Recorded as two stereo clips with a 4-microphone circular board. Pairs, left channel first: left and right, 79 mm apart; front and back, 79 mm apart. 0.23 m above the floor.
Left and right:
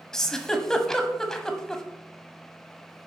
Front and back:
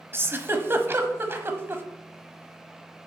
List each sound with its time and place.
0.1 s a giggle: 165° left, 1.1 m